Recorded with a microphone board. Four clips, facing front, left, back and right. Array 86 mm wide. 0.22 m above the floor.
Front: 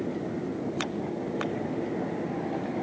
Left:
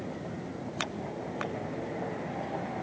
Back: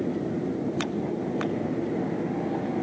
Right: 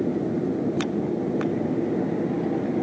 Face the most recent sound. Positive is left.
turn(degrees=-100)